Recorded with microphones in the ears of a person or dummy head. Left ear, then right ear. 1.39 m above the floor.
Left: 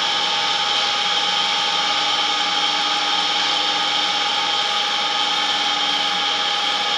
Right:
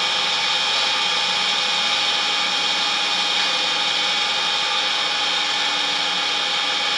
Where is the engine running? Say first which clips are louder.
Left 1 dB; 10° right (ahead or behind), 1.2 m.